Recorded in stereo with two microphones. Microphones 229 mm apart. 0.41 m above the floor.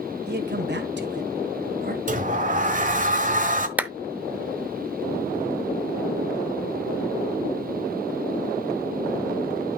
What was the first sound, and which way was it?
A man speaking, 50° right (ahead or behind).